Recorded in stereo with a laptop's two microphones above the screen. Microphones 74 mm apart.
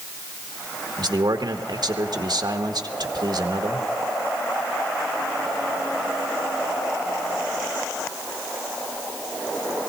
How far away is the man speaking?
About 1.2 m.